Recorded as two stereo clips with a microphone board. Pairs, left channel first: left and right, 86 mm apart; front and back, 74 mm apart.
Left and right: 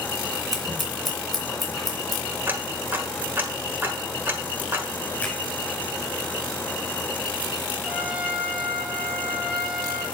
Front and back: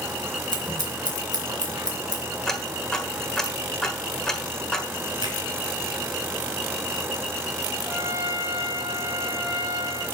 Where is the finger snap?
170° left, 5.5 m.